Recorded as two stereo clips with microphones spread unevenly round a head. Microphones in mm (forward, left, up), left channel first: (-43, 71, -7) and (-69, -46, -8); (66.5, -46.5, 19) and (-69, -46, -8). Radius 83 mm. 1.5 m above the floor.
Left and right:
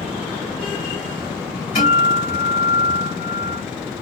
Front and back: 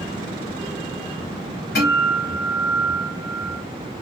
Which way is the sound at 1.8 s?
25° left.